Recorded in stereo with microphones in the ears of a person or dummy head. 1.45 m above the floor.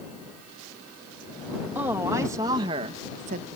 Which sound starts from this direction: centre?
A woman speaking, at 1.8 s.